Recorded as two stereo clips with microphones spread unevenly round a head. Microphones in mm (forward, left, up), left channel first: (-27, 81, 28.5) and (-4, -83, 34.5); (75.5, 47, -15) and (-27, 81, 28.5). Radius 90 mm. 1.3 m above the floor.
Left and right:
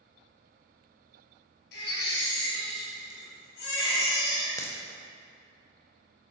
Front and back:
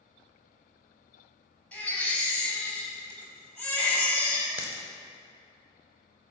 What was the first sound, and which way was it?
A baby crying, 60° left.